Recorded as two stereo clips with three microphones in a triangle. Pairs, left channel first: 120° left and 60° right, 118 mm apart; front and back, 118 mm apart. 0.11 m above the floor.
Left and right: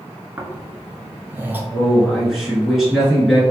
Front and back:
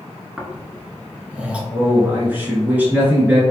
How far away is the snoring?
About 0.7 m.